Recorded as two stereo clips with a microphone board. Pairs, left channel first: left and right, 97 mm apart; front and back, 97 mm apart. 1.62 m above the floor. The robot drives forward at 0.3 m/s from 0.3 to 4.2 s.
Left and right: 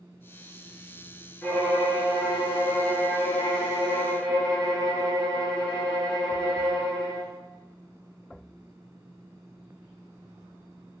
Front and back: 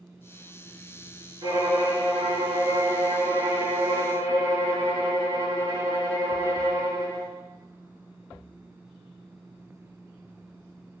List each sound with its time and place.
1.4 s a violin: 160° left, 1.0 m; by 7.3 s 170° left, 1.8 m